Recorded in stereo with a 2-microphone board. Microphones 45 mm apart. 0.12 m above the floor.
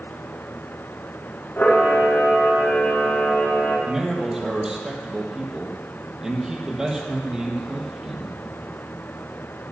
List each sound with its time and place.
1.6 s a camera shutter: 45° left (ahead or behind), 5 m
3.9 s a man speaking: 15° right (ahead or behind), 3 m